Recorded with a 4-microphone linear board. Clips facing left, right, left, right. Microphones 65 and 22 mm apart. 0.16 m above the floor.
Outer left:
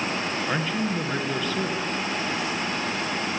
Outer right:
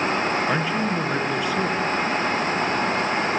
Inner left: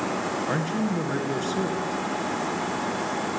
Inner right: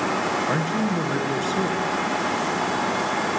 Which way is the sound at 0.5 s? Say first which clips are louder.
Outer right 3 dB, inner right 3 dB; 10° right (ahead or behind).